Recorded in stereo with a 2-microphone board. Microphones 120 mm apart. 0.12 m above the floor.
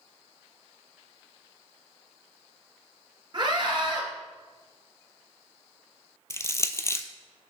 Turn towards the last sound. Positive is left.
turn(degrees=25)  # may be behind; listen again after turning